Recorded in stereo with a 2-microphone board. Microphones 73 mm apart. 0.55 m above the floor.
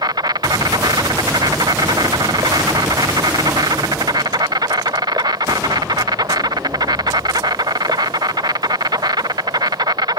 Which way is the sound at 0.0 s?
80° right.